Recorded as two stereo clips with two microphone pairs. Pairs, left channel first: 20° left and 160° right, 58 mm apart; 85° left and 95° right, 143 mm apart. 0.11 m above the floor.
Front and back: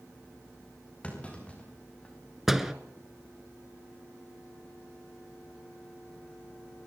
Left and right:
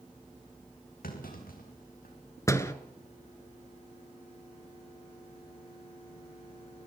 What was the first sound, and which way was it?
A clunk, 90° left.